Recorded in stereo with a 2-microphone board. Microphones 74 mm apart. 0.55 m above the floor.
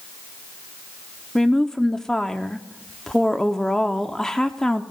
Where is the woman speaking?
10° left (ahead or behind), 0.7 m.